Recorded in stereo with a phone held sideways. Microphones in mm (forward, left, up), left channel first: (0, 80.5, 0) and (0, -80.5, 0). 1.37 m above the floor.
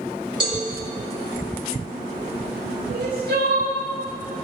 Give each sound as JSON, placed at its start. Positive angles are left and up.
{"t": 0.4, "sound": "a cowbell", "side_deg": -30, "distance_m": 4.5}
{"t": 2.9, "sound": "crying", "side_deg": -85, "distance_m": 5.5}